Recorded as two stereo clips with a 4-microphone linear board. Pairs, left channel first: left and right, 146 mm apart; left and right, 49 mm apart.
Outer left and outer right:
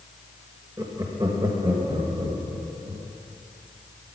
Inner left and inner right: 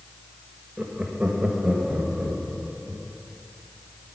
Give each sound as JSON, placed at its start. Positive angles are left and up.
{"t": 0.8, "sound": "laughter", "side_deg": -25, "distance_m": 1.2}